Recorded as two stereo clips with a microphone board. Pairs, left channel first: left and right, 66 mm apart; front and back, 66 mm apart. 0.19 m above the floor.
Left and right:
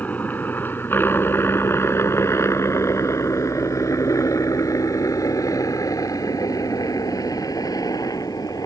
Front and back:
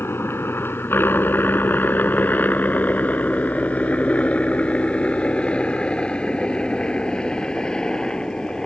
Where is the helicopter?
35° left; by 8.7 s 80° left.